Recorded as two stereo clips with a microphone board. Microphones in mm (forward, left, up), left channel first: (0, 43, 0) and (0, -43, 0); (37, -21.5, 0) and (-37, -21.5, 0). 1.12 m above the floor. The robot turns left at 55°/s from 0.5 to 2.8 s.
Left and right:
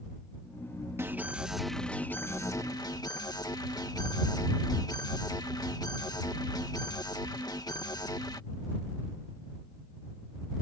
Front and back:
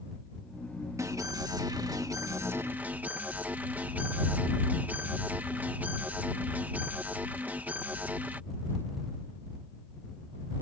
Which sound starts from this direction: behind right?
An alarm, at 1.0 s.